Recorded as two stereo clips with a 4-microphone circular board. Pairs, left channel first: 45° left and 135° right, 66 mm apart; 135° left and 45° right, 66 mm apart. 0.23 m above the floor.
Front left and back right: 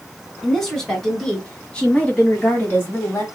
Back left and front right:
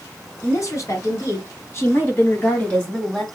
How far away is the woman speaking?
About 2.5 m.